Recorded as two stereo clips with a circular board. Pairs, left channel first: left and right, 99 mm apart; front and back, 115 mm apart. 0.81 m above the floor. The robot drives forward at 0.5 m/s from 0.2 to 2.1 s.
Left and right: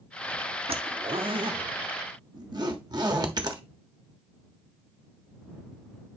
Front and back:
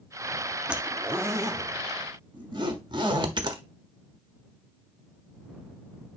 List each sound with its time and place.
0.7 s a zipper: 100° right, 0.9 m; by 3.6 s 135° right, 1.2 m